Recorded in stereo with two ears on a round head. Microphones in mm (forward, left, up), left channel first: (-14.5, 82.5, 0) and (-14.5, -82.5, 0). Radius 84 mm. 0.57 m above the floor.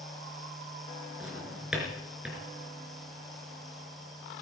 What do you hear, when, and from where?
1.2 s a drawer: 5° right (ahead or behind), 3.5 m